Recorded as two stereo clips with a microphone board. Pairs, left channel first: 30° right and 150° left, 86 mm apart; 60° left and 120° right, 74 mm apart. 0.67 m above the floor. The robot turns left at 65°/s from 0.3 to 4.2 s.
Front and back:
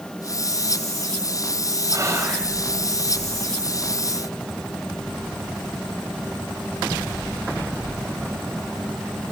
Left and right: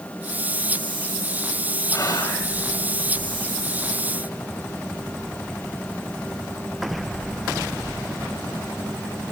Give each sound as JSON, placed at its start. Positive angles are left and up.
{"t": 1.9, "sound": "whispering", "azimuth_deg": 105, "distance_m": 4.0}